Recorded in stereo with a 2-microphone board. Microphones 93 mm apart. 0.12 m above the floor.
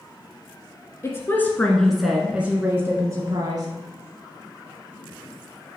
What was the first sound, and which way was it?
A woman speaking, 30° left (ahead or behind).